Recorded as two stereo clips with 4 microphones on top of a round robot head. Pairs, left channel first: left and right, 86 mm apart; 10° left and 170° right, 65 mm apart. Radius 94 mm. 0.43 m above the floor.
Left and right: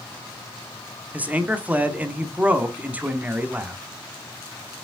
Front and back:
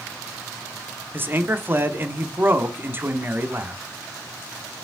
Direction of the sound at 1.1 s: 150° right.